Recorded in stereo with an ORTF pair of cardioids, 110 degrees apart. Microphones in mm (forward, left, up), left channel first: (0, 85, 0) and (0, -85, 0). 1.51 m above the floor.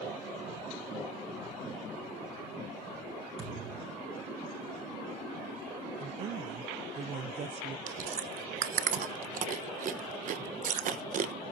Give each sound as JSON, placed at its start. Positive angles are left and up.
{"t": 3.4, "sound": "a thud", "azimuth_deg": -40, "distance_m": 10.0}
{"t": 6.0, "sound": "a woman speaking", "azimuth_deg": -40, "distance_m": 0.8}
{"t": 7.9, "sound": "chewing", "azimuth_deg": -50, "distance_m": 1.2}